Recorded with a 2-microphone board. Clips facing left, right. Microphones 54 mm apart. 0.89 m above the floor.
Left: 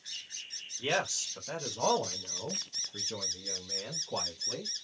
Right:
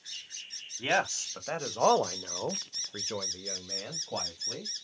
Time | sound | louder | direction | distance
0.8 | a man speaking | right 3 dB | 35° right (ahead or behind) | 1.6 m